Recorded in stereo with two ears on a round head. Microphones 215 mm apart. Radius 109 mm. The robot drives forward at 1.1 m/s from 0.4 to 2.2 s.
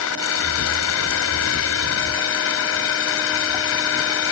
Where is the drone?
65° left (ahead or behind); by 4.3 s 60° left (ahead or behind).